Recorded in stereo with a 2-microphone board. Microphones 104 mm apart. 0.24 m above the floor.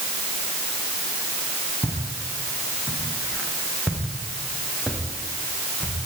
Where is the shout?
I don't hear a shout.